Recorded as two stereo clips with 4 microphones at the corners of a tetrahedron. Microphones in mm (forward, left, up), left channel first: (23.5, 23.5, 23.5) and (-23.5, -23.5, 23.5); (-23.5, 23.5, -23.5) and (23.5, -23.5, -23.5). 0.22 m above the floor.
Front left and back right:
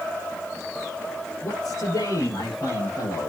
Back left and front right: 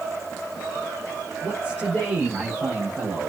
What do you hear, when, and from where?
1.4 s a man speaking: 25° left, 6 m; by 3.3 s 20° left, 7.5 m